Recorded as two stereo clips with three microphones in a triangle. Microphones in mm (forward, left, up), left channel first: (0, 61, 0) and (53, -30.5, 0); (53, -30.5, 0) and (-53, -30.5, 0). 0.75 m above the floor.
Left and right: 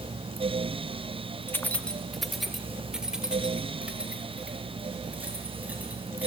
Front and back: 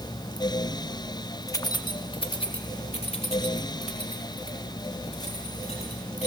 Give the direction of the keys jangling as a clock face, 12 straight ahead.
10 o'clock.